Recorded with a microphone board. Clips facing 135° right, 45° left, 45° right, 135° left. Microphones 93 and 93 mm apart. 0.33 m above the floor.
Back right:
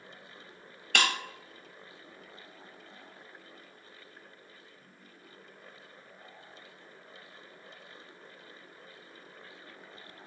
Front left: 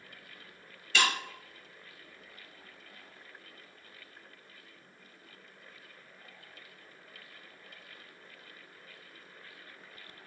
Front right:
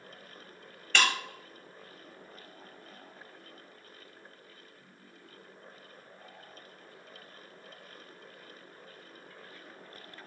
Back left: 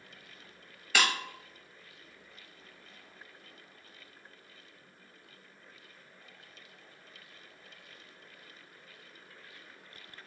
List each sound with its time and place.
0.9 s breaking glass: 145° right, 0.6 m